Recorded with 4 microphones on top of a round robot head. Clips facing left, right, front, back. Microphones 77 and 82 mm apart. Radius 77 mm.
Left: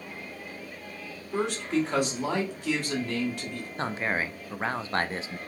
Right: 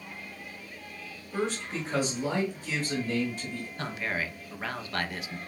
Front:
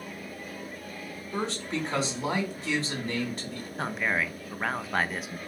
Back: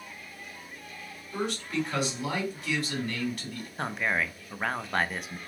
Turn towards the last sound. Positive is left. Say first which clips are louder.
# left 4 dB, even
turn(degrees=85)